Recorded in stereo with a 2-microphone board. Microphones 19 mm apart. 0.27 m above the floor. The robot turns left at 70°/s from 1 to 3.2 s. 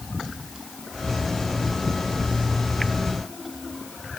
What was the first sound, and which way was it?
Only background noise.